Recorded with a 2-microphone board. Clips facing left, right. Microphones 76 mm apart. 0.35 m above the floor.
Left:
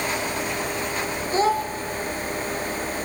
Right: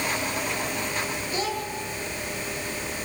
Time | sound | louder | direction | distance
1.3 | a child speaking | left 10 dB | 35° left (ahead or behind) | 0.7 m